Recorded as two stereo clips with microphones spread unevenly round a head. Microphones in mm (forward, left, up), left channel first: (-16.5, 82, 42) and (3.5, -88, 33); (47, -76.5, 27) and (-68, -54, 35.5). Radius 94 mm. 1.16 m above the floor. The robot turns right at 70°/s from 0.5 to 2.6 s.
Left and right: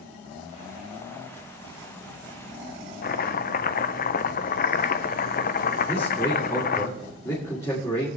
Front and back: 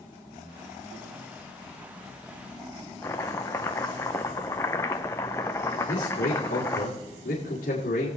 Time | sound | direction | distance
3.0 | chopping | 60° left | 0.6 m
5.9 | a man speaking | 20° left | 3 m